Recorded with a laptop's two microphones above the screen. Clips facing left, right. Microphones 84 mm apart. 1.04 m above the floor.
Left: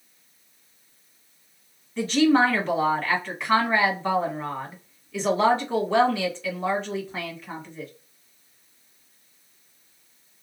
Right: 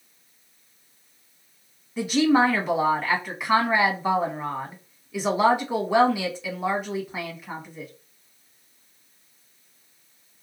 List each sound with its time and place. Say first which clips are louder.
2.0 s a woman speaking: even; 10° right (ahead or behind), 1.5 m